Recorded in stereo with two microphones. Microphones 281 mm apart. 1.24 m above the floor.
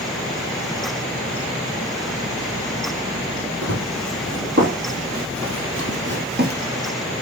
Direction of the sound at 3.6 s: 60° right (ahead or behind).